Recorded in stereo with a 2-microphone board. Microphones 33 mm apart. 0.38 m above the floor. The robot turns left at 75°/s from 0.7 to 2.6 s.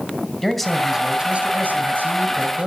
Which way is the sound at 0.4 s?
5° left.